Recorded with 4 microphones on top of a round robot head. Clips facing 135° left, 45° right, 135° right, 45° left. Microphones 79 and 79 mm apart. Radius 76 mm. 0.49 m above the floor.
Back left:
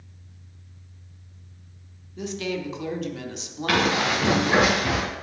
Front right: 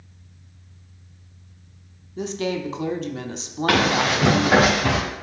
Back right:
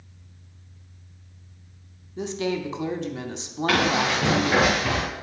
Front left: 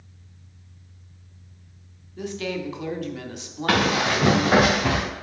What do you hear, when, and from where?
2.2 s a woman speaking: 80° right, 1.0 m
3.7 s running footsteps: 10° left, 3.5 m; by 5.0 s straight ahead, 4 m